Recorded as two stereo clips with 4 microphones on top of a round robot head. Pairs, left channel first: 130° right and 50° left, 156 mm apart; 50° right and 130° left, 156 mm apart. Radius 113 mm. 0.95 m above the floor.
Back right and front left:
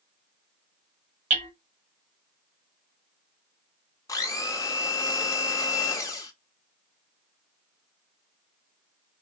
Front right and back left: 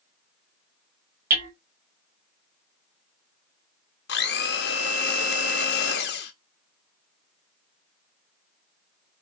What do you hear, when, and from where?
1.3 s hammering: 100° left, 1.3 m
4.1 s a blender: 60° right, 0.7 m